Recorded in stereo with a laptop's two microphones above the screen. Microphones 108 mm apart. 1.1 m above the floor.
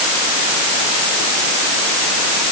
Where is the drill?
I don't hear a drill.